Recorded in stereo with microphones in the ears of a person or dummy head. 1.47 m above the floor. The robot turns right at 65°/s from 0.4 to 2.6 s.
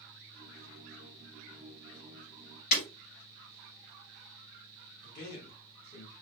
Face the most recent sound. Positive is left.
turn(degrees=50)  # may be behind; listen again after turning